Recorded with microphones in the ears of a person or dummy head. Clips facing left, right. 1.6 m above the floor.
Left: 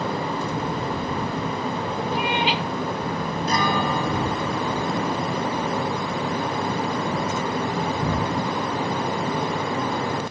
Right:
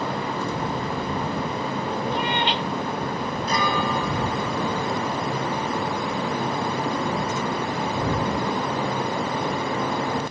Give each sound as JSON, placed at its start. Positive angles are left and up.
{"t": 2.1, "sound": "a cat meowing", "side_deg": 10}
{"t": 3.5, "sound": "a guitar", "side_deg": 45}